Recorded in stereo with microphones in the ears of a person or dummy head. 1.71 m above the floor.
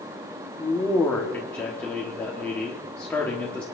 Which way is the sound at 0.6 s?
15° left (ahead or behind).